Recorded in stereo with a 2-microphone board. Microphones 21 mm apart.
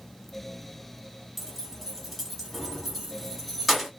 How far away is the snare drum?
I don't hear a snare drum.